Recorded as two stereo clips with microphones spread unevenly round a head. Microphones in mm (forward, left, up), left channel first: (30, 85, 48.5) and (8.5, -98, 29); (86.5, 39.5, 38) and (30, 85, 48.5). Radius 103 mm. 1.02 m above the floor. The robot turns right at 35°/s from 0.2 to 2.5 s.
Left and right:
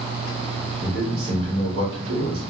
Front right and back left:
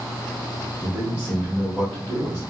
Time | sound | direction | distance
0.8 | a man speaking | 175° right | 0.9 m